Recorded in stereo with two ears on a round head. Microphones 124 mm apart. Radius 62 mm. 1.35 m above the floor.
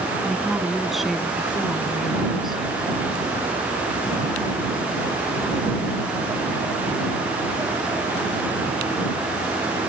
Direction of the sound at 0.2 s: Centre (ahead or behind).